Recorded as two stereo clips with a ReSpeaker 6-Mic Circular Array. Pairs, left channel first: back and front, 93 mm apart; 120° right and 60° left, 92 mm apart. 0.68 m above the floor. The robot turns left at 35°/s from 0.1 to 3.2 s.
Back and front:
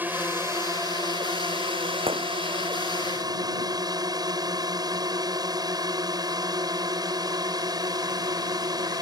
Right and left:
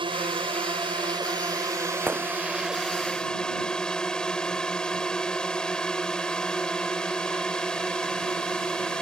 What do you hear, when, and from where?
0.0 s a drone: 70° left; by 9.0 s 40° right
2.1 s a gunshot: 10° right; by 2.3 s 20° right